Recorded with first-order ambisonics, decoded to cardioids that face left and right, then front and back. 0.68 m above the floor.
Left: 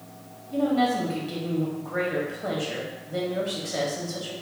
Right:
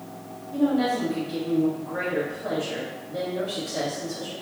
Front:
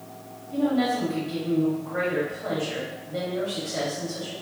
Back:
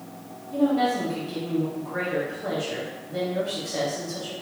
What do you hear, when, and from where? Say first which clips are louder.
0.5 s a woman speaking: even, back 2 dB; 105° left, 1.1 m